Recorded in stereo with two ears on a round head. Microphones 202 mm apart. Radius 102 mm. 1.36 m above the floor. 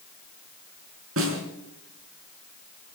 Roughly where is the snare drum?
Right.